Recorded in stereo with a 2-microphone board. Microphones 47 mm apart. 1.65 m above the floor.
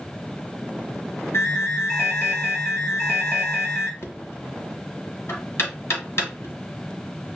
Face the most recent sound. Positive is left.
turn(degrees=70)  # may be behind; listen again after turning